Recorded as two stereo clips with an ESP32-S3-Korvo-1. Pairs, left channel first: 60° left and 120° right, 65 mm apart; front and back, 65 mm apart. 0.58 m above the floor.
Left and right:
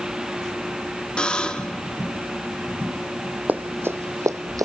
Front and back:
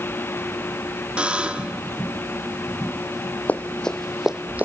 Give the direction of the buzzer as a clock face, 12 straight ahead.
8 o'clock.